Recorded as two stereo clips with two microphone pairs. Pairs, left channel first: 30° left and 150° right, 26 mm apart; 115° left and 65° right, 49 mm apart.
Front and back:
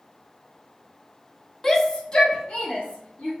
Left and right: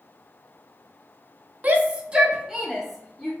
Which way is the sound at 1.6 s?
45° right.